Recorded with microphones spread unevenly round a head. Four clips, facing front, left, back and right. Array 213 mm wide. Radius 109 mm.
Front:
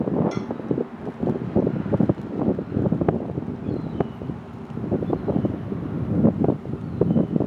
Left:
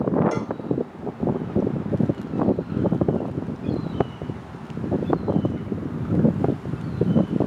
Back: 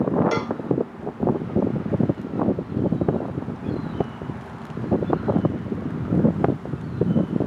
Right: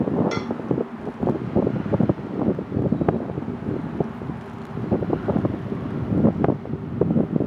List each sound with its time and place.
0.3 s a cowbell: 175° left